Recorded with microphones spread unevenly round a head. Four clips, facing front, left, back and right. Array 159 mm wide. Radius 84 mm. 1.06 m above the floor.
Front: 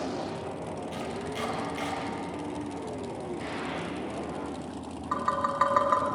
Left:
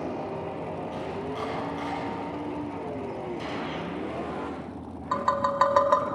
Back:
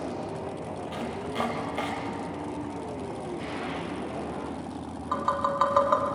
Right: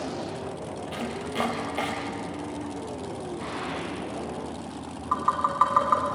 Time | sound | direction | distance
0.9 | chopping | 120° right | 5.5 m
3.4 | a gunshot | 105° left | 5 m
5.1 | tapping | 105° left | 1.7 m